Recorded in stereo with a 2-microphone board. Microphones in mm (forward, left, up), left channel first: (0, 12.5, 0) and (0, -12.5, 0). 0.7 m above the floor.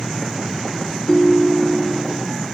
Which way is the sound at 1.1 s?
25° left (ahead or behind).